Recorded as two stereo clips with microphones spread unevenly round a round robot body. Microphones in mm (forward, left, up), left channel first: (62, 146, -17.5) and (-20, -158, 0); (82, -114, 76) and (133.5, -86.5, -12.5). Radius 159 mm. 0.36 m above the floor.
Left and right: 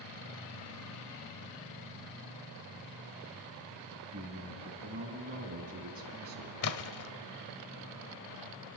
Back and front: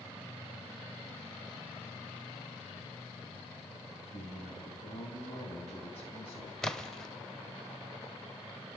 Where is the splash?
50° left, 1.0 m.